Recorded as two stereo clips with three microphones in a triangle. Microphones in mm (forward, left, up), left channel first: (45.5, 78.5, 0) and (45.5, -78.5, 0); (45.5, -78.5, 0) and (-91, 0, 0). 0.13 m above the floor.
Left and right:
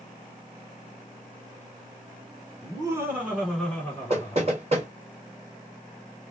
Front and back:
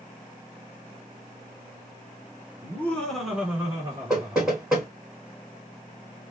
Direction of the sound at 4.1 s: 125° right.